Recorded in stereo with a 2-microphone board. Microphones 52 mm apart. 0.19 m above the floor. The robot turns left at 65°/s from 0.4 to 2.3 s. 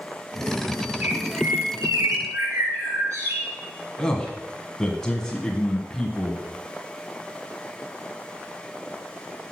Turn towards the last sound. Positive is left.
turn(degrees=15)  # may be behind; listen again after turning